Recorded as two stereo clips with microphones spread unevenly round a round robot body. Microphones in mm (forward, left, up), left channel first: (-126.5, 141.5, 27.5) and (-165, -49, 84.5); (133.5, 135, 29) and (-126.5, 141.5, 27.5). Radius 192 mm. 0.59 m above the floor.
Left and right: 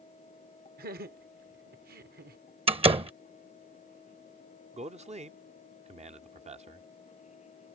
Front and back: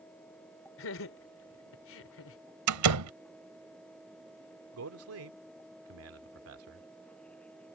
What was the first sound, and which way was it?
Laughter, 45° right.